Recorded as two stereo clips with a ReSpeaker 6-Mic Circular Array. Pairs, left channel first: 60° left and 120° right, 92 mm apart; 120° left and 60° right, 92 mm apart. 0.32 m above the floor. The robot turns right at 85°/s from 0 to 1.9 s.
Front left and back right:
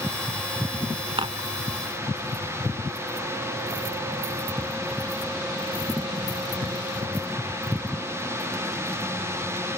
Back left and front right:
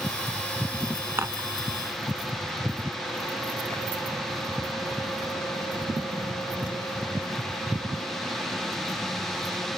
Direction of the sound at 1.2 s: 120° right.